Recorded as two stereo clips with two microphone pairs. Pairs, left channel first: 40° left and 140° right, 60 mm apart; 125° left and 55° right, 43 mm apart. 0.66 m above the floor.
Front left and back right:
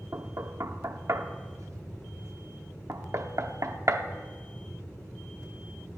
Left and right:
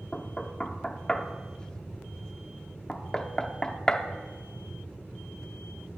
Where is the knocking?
165° right, 0.7 m.